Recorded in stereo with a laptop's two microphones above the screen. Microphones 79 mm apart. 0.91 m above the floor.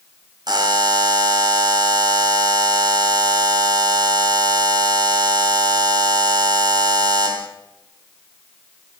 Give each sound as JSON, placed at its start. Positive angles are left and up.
{"t": 0.5, "sound": "a buzzer", "side_deg": -60, "distance_m": 0.9}